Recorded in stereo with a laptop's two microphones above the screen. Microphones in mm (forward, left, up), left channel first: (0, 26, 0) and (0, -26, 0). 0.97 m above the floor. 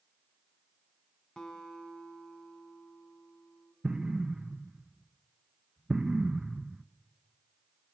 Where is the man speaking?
No man speaking in this recording.